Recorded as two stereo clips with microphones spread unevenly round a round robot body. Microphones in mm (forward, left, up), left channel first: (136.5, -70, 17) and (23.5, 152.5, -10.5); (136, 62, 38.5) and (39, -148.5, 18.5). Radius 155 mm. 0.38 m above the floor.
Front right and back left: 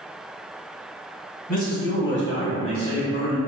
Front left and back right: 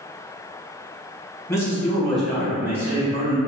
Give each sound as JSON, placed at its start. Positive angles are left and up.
{"t": 1.5, "sound": "a man speaking", "azimuth_deg": -10, "distance_m": 1.4}